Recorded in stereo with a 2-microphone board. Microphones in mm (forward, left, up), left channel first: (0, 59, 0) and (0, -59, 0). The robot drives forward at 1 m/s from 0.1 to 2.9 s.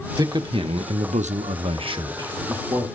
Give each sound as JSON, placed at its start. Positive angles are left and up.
{"t": 0.2, "sound": "a man speaking", "side_deg": -35, "distance_m": 1.3}